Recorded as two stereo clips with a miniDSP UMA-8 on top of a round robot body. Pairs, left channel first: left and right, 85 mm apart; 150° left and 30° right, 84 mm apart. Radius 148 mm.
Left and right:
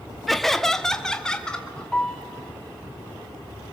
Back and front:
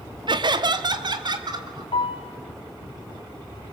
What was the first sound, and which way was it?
Laughter, straight ahead.